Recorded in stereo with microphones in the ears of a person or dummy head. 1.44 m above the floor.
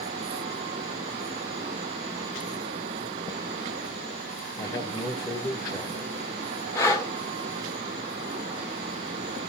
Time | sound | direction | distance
4.6 | a man speaking | 20° left (ahead or behind) | 1.7 m
6.8 | breathing | 20° left (ahead or behind) | 1.6 m